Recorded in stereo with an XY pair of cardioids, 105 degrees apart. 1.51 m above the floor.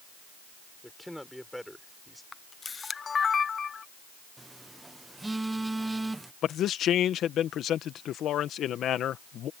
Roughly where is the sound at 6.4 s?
Ahead left.